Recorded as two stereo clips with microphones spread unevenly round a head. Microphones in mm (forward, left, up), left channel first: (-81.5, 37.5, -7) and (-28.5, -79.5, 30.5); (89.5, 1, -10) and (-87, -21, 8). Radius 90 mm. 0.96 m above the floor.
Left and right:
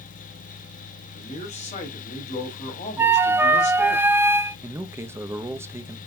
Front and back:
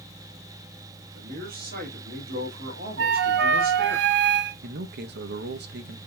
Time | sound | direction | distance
1.1 | a man speaking | 145° left | 1.8 m
3.0 | a flute | 145° right | 0.6 m
4.6 | a man speaking | 145° right | 0.7 m